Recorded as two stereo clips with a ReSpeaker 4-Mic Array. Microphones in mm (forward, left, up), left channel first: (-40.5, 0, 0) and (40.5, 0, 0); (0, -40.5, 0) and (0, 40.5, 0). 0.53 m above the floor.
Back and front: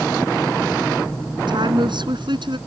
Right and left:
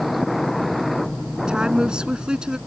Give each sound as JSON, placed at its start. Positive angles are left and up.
{"t": 1.5, "sound": "a woman speaking", "azimuth_deg": 10}